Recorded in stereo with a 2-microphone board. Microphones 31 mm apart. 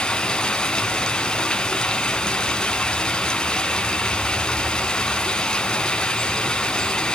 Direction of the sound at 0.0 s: 25° left (ahead or behind).